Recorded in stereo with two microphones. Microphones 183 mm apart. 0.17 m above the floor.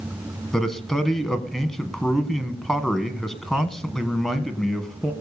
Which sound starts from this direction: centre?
A man speaking, at 0.5 s.